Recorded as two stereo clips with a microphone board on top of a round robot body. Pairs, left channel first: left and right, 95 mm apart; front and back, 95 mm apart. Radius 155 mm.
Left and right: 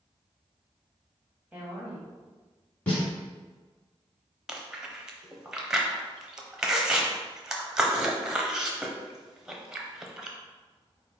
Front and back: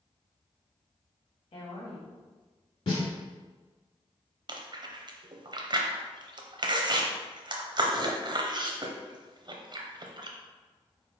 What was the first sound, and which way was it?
A woman speaking, 15° right.